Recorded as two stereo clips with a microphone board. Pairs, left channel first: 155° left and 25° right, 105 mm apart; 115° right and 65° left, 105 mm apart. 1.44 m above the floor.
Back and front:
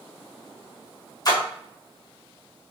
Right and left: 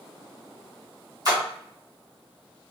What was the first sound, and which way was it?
A splash, 115° left.